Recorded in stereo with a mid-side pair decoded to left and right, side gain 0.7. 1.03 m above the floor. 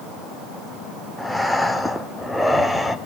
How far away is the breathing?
About 1.4 m.